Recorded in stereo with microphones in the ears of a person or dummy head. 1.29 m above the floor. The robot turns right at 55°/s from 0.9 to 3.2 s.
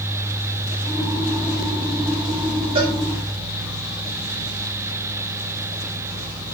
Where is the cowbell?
30° right (ahead or behind), 8.5 m; by 3.0 s 45° right (ahead or behind), 8.5 m.